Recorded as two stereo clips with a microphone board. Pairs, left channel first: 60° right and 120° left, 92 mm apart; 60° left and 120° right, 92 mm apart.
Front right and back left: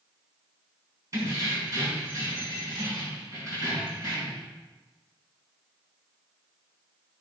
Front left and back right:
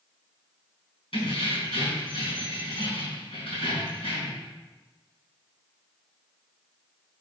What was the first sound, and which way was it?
Keys jangling, 65° left.